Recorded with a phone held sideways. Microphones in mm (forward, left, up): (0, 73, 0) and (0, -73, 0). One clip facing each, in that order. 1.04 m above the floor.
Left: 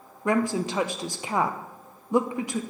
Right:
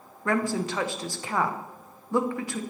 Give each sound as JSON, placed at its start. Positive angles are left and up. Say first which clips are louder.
{"t": 0.2, "sound": "a woman speaking", "louder": "left 2 dB", "side_deg": 20, "distance_m": 0.6}